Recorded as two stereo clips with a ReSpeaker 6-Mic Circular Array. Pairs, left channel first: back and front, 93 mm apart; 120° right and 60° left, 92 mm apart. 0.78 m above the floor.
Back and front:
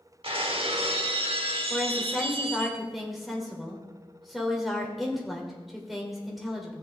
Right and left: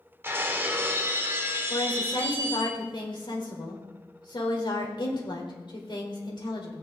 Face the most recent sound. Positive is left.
turn(degrees=-90)